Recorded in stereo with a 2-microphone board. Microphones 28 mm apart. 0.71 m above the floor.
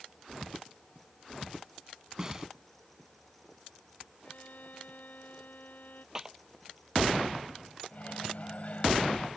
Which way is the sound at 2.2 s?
20° right (ahead or behind).